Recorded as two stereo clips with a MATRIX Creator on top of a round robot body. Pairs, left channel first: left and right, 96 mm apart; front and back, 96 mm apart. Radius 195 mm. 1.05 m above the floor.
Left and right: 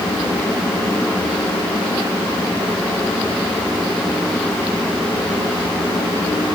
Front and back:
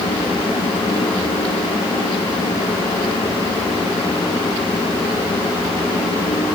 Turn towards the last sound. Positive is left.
No sound to turn to.